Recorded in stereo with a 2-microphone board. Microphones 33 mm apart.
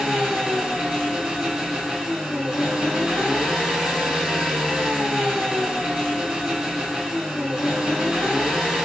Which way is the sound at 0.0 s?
35° right (ahead or behind).